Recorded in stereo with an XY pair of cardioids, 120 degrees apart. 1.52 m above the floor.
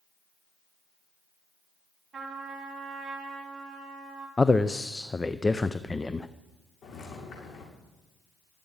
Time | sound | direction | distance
2.1 | a trumpet | 15° right | 6 m
4.4 | a man speaking | 15° left | 0.5 m
6.8 | footsteps | 50° left | 7.5 m